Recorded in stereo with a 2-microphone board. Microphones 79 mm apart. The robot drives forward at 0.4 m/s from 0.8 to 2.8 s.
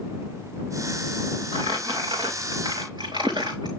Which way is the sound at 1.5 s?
70° right (ahead or behind).